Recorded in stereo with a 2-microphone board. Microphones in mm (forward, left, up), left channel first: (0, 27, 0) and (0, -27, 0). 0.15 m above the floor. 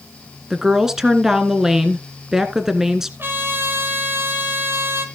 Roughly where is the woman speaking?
Centre.